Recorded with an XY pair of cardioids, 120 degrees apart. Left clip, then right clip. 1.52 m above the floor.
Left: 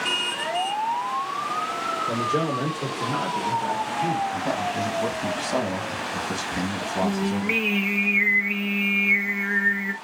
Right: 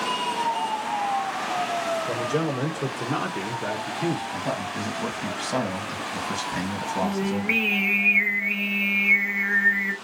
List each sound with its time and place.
2.1 s a man speaking: 5° left, 1.3 m; by 4.2 s 55° right, 0.8 m
4.3 s a man speaking: 5° left, 1.5 m
7.0 s singing: 5° right, 0.8 m